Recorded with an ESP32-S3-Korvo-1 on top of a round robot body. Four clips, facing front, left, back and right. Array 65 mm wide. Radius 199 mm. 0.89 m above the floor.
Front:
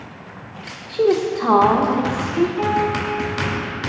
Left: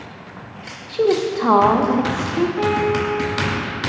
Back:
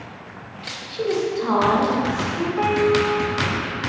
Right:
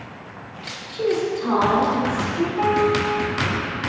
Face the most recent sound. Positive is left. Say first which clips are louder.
# right 4 dB, back 2 dB
turn(degrees=160)